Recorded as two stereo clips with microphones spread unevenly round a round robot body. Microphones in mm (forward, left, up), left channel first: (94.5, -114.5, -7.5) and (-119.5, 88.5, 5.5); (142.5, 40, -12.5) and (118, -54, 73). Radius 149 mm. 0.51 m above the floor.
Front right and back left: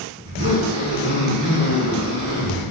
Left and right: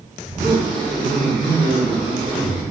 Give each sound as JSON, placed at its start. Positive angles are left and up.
{"t": 0.2, "sound": "a zipper", "azimuth_deg": -160, "distance_m": 3.5}